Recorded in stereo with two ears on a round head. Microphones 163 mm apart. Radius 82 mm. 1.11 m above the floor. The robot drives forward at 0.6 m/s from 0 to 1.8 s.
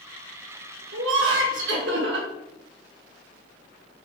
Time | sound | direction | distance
0.9 | laughter | 75° right (ahead or behind) | 1.5 m